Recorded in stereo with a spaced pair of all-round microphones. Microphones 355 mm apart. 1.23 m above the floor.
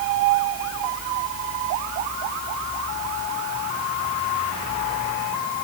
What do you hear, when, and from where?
Only background noise.